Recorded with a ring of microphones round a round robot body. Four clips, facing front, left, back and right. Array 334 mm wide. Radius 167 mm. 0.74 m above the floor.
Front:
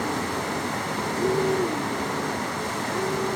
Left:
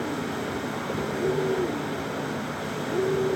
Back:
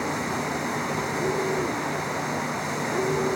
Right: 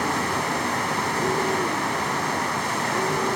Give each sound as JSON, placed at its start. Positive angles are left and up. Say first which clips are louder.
{"t": 0.0, "sound": "running water", "louder": "right 5 dB, even", "azimuth_deg": -95, "distance_m": 0.8}